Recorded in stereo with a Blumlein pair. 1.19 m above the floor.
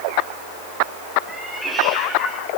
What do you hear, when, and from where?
1.3 s a cat meowing: straight ahead, 7.5 m; by 2.5 s 5° left, 6.5 m